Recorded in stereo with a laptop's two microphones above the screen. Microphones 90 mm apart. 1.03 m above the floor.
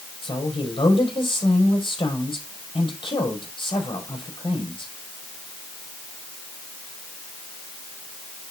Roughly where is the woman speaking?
Left.